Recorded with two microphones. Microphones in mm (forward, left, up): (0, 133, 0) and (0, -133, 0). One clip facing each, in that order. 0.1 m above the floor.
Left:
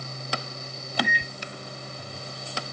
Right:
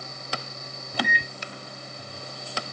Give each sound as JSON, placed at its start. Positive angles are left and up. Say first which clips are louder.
{"t": 0.9, "sound": "a microwave", "louder": "even", "side_deg": -65, "distance_m": 2.0}